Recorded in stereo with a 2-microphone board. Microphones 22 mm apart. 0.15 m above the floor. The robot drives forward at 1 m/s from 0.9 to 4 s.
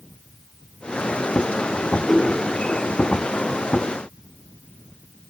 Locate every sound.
2.0 s a whoosh: 20° left (ahead or behind), 4 m